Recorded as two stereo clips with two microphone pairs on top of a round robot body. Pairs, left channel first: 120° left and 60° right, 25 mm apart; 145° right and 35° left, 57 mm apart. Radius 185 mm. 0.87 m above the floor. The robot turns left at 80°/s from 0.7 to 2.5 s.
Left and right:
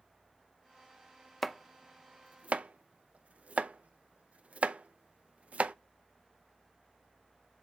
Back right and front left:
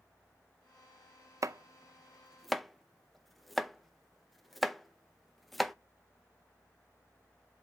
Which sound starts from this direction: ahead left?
Chopping, at 1.4 s.